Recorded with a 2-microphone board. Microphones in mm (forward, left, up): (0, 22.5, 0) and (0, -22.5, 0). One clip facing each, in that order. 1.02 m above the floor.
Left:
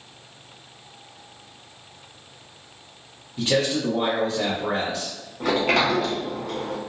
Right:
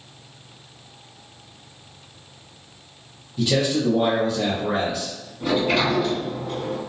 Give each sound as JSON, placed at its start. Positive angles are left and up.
{"t": 3.4, "sound": "a man speaking", "side_deg": 35, "distance_m": 0.7}
{"t": 5.4, "sound": "a sliding door", "side_deg": 75, "distance_m": 0.8}